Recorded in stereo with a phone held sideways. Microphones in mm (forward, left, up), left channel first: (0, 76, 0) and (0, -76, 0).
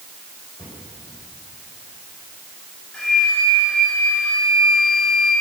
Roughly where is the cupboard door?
Left.